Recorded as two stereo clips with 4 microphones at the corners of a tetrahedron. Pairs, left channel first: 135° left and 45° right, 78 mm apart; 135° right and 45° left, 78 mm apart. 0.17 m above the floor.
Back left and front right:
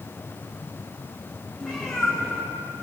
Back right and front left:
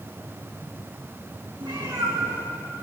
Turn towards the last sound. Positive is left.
turn(degrees=55)